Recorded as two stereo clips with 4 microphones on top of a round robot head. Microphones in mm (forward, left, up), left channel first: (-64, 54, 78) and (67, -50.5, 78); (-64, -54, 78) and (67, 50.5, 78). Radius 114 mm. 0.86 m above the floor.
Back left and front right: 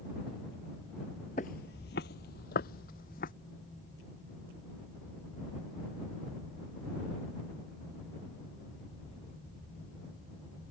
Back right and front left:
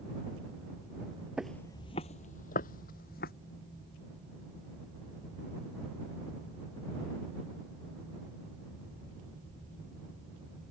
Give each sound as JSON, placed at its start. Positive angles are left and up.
{"t": 1.4, "sound": "footsteps", "azimuth_deg": 120}